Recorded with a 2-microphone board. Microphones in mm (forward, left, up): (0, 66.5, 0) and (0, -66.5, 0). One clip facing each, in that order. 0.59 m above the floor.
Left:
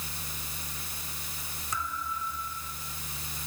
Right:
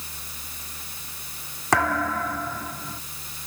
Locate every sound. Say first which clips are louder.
1.7 s a thud: right 13 dB; 75° right (ahead or behind)